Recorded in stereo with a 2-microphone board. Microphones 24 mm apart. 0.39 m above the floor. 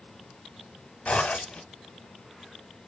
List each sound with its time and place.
1.1 s a zipper: 75° left (ahead or behind), 0.8 m